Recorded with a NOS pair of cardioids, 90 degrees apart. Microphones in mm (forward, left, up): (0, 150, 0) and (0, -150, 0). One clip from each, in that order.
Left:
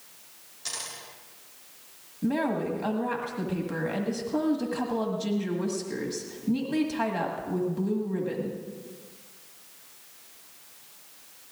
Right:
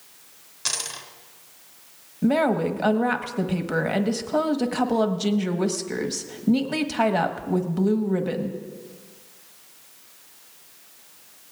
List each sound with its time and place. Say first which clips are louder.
0.7 s a dropped coin: right 8 dB; 70° right, 3 m
2.2 s a woman speaking: right 7 dB; 50° right, 1.4 m